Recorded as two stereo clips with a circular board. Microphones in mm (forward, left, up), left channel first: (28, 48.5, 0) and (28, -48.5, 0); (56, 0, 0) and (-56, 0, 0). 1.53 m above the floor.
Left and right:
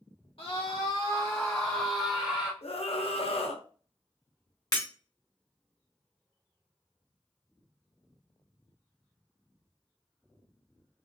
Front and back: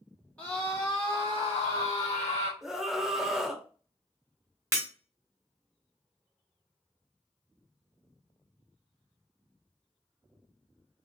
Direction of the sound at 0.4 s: 75° left.